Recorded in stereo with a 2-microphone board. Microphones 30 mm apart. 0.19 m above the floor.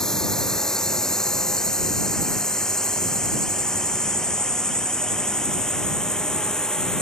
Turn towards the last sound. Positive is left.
turn(degrees=20)  # may be behind; listen again after turning